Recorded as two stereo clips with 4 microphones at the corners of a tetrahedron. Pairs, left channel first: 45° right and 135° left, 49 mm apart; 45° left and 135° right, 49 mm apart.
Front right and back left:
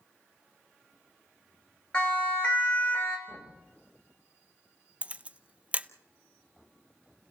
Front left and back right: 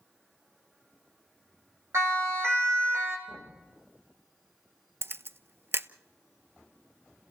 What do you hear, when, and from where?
1.9 s a siren: 115° right, 5.5 m; by 3.2 s 105° right, 5.5 m
3.3 s knocking: 140° right, 9 m
5.0 s a camera shutter: 165° right, 0.7 m